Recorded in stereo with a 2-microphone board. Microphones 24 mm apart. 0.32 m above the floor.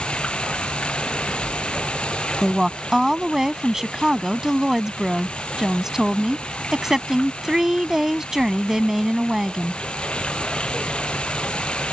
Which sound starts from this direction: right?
A woman speaking, at 2.4 s.